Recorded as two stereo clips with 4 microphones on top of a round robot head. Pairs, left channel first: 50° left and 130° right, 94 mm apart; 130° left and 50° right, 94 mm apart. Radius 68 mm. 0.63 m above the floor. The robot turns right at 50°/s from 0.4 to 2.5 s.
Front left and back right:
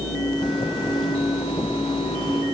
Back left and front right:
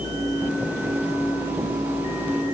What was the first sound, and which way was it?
Only background noise.